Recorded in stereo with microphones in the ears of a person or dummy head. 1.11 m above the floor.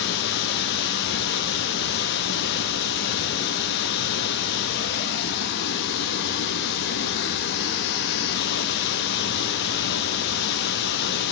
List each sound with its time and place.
0.0 s running water: 60° left (ahead or behind), 0.8 m